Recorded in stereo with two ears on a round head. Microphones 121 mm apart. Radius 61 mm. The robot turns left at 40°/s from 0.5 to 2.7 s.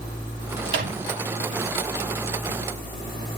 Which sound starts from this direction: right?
A microwave, at 0.7 s.